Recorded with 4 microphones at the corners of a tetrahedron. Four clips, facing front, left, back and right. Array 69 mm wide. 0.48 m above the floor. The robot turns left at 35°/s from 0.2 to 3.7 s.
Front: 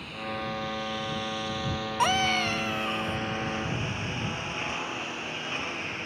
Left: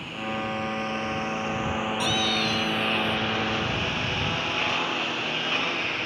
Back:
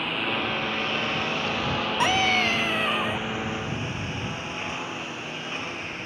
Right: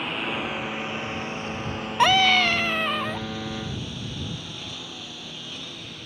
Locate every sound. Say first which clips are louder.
0.0 s a lawn mower: right 2 dB, back 7 dB; 140° right; by 6.1 s 90° left
2.0 s a scream: right 11 dB, back 2 dB; 90° right; by 3.3 s 135° right